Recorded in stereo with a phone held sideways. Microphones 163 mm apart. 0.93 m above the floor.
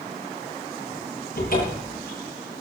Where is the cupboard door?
60° left (ahead or behind), 9 m.